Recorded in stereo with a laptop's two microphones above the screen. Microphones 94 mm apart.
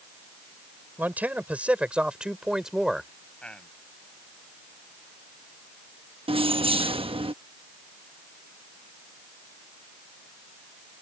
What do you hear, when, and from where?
1.0 s a man speaking: 20° right (ahead or behind); by 3.1 s 5° right (ahead or behind)
3.4 s a man speaking: 10° left (ahead or behind)
6.3 s keys jangling: 75° right (ahead or behind)